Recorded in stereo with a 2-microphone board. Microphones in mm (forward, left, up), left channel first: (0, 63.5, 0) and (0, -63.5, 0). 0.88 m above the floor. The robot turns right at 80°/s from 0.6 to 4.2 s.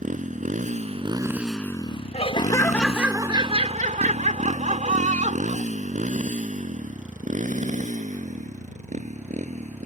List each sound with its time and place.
0.0 s a motorcycle: 85° right; by 9.9 s 70° right (ahead or behind)
2.1 s laughter: 120° left; by 5.7 s 75° right